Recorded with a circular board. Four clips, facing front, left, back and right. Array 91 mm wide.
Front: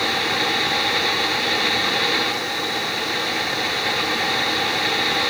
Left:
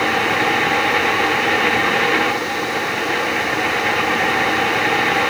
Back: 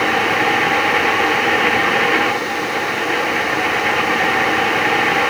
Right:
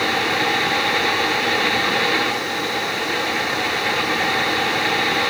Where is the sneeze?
No sneeze in this recording.